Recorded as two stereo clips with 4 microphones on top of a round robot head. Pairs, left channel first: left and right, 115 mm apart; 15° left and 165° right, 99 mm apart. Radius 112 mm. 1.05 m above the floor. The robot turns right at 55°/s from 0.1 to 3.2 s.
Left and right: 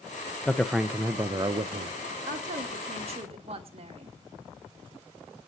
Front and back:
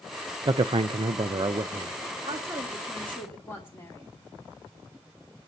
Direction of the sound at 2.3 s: 110° right.